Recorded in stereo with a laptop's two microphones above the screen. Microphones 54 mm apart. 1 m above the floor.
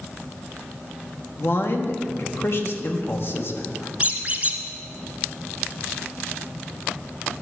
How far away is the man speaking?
About 1.2 m.